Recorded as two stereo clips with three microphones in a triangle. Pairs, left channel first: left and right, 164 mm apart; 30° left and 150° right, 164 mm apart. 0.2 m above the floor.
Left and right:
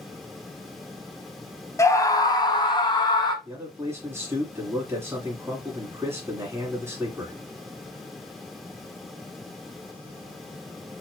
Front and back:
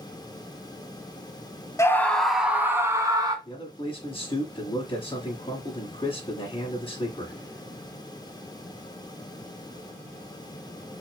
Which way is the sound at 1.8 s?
60° left.